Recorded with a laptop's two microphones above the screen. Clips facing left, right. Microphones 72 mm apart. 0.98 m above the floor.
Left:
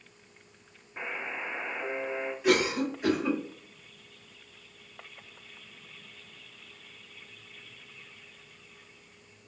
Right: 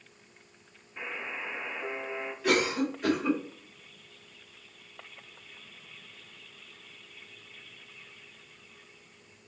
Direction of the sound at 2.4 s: 15° left (ahead or behind).